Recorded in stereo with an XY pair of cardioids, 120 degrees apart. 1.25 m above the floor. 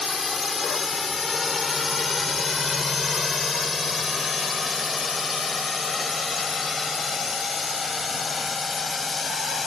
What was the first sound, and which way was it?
A drone, 25° left.